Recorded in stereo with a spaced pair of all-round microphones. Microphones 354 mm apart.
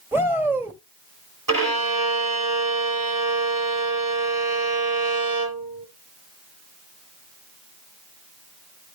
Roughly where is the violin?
Right.